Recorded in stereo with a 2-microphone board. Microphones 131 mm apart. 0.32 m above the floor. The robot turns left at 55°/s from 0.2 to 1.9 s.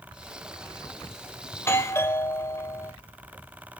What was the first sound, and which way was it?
A doorbell, 20° left (ahead or behind).